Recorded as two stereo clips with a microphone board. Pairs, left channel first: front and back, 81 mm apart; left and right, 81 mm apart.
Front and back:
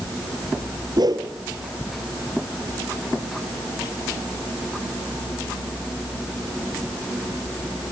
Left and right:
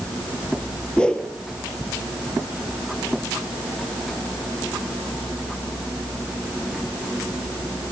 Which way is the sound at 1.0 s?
165° left.